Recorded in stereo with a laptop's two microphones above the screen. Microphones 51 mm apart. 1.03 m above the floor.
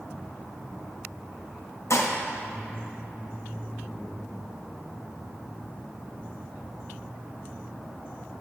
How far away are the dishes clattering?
About 0.9 m.